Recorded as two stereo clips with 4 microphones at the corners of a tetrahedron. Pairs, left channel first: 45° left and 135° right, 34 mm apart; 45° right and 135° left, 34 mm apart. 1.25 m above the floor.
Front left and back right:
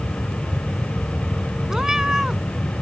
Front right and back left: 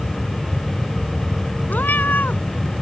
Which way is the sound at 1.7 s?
65° right.